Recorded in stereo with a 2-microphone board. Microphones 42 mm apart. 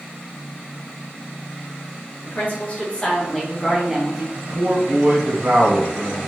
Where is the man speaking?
70° right (ahead or behind), 1.5 m.